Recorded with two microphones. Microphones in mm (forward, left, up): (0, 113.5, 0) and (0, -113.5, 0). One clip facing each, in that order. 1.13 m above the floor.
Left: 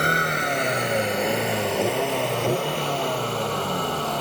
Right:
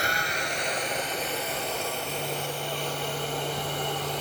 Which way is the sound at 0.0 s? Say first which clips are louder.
Left 7 dB; 60° left (ahead or behind).